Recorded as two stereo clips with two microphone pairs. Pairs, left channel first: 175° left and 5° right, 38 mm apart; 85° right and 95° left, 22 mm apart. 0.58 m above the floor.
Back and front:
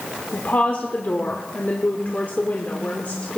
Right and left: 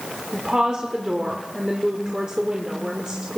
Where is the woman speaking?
145° left, 1.3 m.